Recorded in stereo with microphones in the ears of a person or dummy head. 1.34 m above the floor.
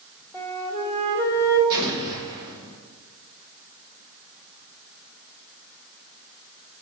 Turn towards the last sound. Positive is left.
turn(degrees=-25)  # may be behind; listen again after turning